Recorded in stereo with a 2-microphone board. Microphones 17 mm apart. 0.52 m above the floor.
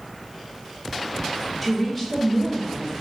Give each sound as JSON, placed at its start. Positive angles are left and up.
{"t": 1.6, "sound": "a woman speaking", "side_deg": -5, "distance_m": 0.9}